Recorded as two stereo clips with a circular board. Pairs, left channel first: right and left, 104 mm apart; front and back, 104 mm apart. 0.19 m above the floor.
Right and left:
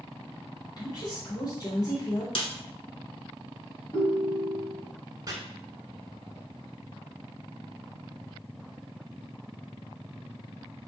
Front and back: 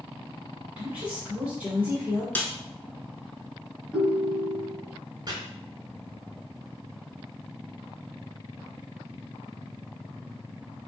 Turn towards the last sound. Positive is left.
turn(degrees=135)